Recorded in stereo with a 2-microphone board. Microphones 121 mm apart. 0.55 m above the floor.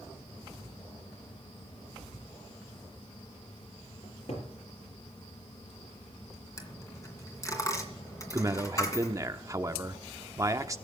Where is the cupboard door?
55° left (ahead or behind), 4.5 m.